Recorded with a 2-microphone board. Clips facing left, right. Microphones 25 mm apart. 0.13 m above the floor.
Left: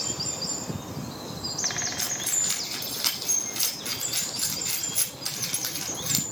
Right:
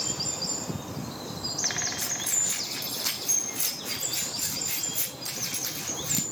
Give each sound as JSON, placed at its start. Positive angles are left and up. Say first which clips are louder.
{"t": 2.0, "sound": "keys jangling", "louder": "left 1 dB", "side_deg": 65, "distance_m": 4.5}